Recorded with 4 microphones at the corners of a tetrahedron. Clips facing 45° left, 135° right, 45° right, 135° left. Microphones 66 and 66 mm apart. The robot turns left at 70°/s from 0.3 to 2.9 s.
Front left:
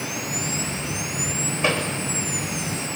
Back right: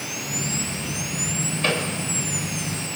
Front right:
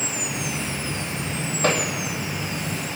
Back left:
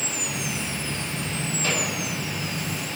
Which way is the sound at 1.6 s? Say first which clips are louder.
Front left 1 dB, front right 6 dB; 30° right.